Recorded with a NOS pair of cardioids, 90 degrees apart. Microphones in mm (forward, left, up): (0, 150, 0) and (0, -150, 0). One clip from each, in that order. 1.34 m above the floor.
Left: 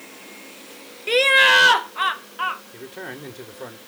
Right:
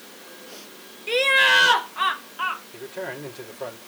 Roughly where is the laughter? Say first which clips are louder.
Left 3 dB; ahead left.